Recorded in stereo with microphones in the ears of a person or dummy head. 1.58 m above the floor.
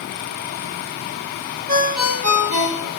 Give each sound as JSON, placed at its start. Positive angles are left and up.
{"t": 1.7, "sound": "a ringtone", "side_deg": -45, "distance_m": 0.9}